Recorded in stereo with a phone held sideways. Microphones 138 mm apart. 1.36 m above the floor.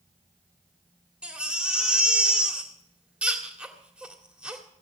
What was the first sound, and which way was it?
A baby crying, 10° right (ahead or behind).